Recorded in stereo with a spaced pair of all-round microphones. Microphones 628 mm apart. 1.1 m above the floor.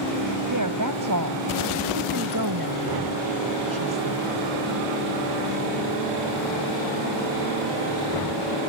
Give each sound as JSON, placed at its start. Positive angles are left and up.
{"t": 0.5, "sound": "a woman speaking", "side_deg": -30}